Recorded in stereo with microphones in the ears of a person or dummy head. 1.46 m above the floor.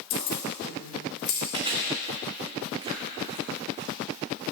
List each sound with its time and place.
0.1 s keys jangling: 70° left (ahead or behind), 3.5 m; by 1.4 s 80° left, 3.5 m
1.5 s chewing: 25° right (ahead or behind), 1.6 m